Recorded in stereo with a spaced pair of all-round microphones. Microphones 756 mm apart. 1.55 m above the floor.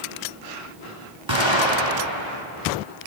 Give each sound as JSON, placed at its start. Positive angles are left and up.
{"t": 1.3, "sound": "an explosion", "side_deg": -35, "distance_m": 2.0}